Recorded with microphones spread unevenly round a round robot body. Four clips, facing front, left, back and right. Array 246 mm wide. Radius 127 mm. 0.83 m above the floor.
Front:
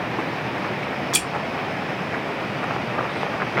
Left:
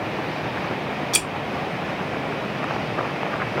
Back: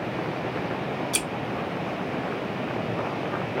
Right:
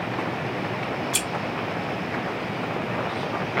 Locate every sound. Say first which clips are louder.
1.1 s scissors: left 1 dB, front 2 dB; 75° left, 1.1 m